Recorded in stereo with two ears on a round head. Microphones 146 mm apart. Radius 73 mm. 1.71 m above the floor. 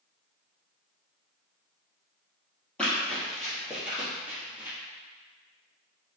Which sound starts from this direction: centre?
Running footsteps, at 2.8 s.